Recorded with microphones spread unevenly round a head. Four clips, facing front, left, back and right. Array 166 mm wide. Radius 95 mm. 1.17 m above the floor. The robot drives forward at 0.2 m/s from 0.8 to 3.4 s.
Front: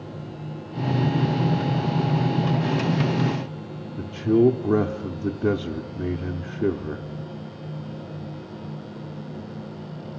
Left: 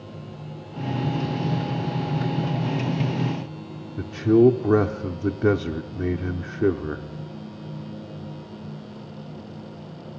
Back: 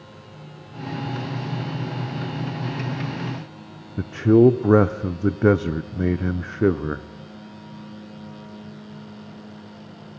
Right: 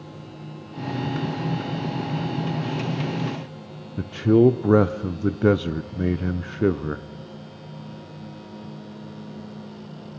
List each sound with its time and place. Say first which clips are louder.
4.0 s a man speaking: even, back 4 dB; 160° right, 0.7 m